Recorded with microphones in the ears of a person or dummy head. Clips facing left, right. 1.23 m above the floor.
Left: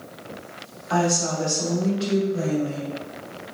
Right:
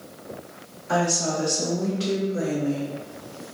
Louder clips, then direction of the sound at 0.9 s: Left 1 dB; 65° right (ahead or behind).